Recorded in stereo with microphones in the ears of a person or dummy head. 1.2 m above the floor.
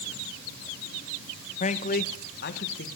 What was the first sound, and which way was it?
A man speaking, 40° left (ahead or behind).